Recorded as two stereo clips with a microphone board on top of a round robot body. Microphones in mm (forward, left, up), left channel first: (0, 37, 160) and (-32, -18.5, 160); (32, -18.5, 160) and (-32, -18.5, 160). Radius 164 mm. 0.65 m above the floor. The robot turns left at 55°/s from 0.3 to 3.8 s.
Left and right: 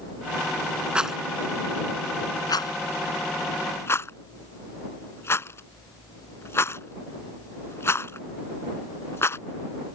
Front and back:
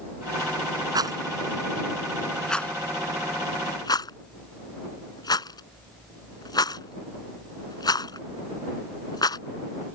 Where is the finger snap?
I don't hear a finger snap.